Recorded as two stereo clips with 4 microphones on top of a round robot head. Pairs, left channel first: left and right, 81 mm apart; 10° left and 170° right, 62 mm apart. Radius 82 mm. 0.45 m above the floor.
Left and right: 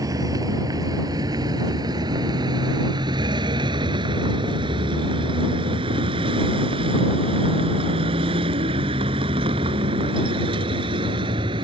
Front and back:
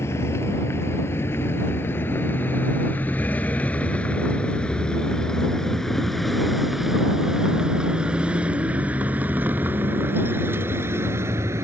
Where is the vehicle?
45° right; by 11.6 s 120° right.